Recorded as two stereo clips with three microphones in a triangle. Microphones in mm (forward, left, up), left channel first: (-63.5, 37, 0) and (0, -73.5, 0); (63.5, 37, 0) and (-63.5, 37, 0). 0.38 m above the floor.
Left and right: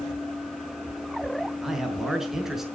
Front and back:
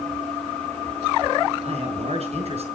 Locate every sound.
1.6 s a man speaking: 145° right, 5 m